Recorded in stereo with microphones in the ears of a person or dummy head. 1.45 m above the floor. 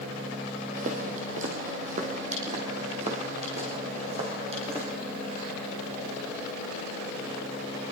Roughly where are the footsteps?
Right.